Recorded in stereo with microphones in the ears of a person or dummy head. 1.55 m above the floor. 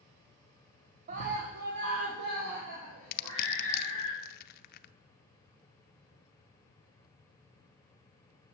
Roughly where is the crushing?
Left.